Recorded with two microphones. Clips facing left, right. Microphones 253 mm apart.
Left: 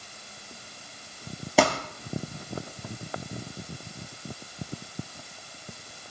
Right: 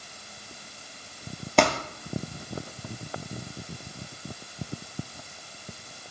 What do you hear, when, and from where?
1.6 s crumpling: 5° left (ahead or behind), 3 m